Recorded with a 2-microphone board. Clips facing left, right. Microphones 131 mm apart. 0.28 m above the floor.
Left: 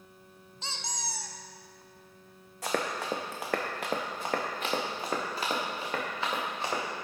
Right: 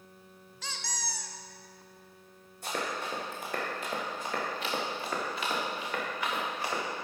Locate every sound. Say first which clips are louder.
0.6 s a squeak: left 1 dB; 25° left (ahead or behind), 0.5 m
2.6 s running footsteps: left 3 dB; 75° left (ahead or behind), 1.4 m; by 6.8 s 25° left (ahead or behind), 3.5 m